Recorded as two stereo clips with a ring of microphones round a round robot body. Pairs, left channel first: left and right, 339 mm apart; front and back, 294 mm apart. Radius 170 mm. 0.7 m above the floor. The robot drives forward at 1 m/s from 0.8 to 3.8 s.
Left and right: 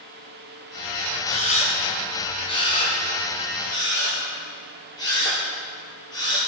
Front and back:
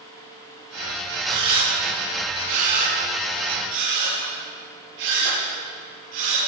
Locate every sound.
1.3 s a camera shutter: 160° left, 3 m; by 6.4 s 170° left, 5.5 m